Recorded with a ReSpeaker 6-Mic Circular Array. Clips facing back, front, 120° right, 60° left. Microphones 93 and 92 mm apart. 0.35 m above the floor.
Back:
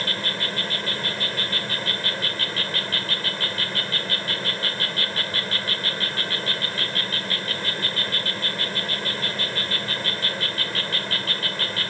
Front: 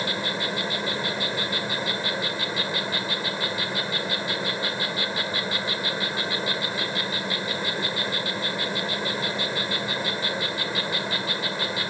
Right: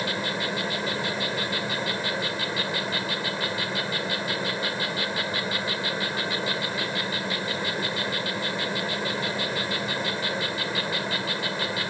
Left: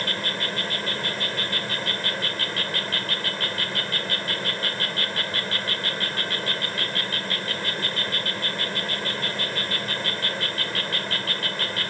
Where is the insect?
55° right.